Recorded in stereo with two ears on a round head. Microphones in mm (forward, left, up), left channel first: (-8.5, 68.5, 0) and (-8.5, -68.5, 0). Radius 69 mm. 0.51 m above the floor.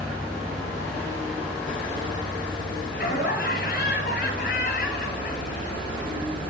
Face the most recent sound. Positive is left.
turn(degrees=65)  # may be behind; listen again after turning